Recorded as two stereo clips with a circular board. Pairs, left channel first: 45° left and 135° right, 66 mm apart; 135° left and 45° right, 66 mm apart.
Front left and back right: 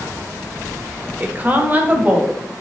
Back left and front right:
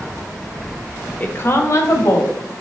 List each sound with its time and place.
1.2 s a woman speaking: 175° left, 1.0 m; by 2.3 s 160° left, 2.5 m